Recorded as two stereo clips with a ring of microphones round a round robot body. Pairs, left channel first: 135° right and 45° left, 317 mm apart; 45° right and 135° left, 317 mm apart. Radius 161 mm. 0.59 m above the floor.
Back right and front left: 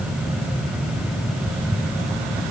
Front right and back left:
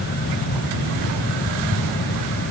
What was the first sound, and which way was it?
Only background noise.